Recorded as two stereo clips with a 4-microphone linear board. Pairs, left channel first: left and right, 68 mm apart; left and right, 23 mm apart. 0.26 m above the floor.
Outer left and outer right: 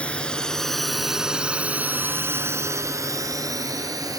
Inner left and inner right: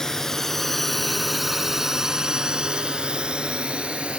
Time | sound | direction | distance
0.0 | a drone | 15° left (ahead or behind) | ?